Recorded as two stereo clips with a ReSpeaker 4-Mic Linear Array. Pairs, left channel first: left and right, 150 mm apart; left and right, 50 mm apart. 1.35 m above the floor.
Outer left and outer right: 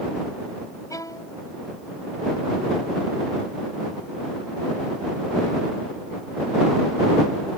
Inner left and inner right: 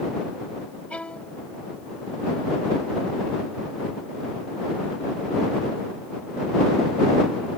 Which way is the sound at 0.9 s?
25° left (ahead or behind).